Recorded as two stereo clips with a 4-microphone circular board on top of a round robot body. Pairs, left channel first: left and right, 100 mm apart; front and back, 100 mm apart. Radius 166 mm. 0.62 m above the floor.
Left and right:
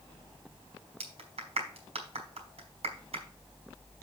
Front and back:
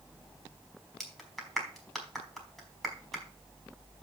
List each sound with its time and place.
1.0 s a clap: 90° right, 3.5 m